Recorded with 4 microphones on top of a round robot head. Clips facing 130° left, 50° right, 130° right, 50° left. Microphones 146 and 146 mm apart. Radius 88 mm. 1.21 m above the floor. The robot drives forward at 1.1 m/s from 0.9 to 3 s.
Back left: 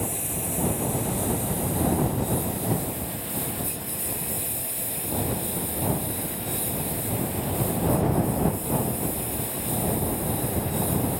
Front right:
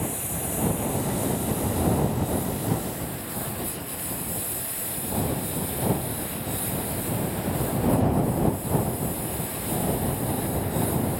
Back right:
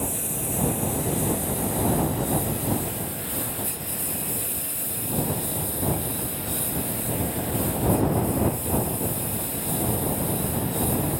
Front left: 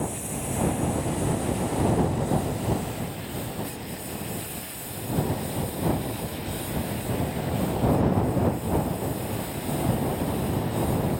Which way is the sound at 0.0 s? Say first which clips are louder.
Even, even; 160° right.